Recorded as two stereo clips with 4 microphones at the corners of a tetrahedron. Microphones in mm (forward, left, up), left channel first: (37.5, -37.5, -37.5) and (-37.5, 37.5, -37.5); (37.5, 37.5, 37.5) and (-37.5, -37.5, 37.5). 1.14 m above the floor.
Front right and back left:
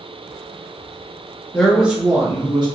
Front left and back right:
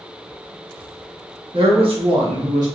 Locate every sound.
1.5 s a man speaking: 125° right, 1.3 m; by 2.7 s 175° left, 1.5 m